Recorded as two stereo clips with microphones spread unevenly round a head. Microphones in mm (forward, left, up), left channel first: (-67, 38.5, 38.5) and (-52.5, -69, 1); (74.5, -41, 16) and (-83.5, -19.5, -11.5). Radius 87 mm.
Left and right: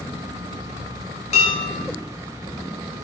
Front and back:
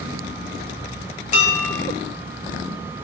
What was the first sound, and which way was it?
Dishes clattering, 45° left.